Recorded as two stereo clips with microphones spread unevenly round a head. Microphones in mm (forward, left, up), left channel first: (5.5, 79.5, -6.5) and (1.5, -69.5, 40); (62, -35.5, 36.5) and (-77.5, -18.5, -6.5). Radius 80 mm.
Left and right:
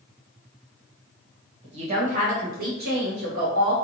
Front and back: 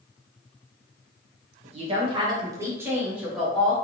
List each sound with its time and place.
1.6 s a woman speaking: 140° right, 1.2 m; by 3.7 s 90° right, 1.3 m